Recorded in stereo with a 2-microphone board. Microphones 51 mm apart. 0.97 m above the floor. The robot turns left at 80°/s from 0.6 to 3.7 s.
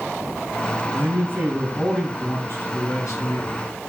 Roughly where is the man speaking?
Right.